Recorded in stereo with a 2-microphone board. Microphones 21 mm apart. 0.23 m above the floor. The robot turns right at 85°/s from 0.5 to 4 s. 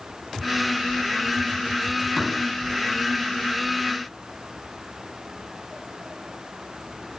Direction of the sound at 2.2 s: 25° left (ahead or behind).